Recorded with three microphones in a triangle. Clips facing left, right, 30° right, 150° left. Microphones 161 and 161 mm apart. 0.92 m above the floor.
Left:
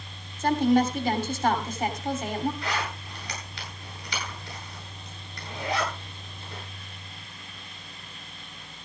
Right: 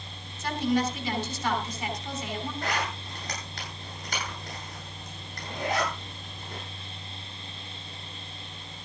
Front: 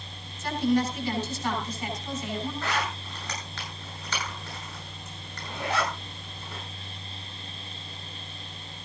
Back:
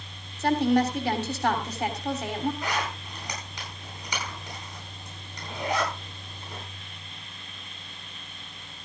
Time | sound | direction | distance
0.4 | a woman speaking | 130° left | 3 m
2.6 | a zipper | 135° right | 10 m